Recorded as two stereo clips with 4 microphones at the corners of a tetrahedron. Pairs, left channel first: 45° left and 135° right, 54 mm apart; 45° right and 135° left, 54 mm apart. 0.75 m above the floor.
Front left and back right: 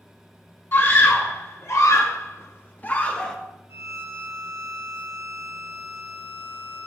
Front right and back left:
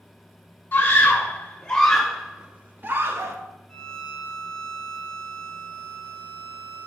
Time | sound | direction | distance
0.7 | a scream | 10° left | 1.5 m
3.7 | a violin | 120° right | 0.8 m